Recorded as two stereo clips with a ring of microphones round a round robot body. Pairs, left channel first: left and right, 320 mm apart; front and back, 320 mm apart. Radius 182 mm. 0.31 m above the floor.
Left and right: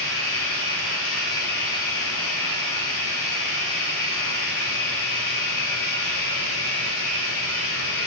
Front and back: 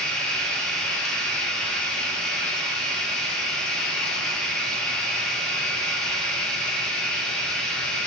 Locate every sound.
0.0 s running water: 90° left, 1.0 m